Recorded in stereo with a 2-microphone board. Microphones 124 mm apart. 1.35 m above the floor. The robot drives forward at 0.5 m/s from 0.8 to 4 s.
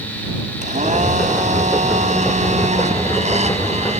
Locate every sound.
0.6 s a blender: 70° right (ahead or behind); by 4.0 s 60° right (ahead or behind)